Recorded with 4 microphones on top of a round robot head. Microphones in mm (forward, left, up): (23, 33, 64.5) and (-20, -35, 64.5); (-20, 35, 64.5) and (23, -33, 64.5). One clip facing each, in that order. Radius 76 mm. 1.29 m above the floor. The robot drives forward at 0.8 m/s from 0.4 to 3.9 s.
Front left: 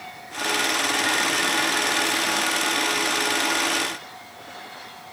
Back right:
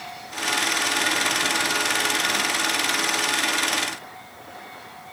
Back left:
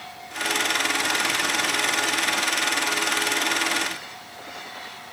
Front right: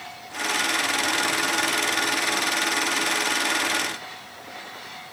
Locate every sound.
Only background noise.